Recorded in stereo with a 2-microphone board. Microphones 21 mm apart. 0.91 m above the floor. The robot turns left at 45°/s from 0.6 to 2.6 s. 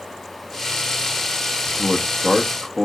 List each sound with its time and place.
1.7 s a man speaking: 40° left, 0.9 m; by 2.9 s straight ahead, 0.9 m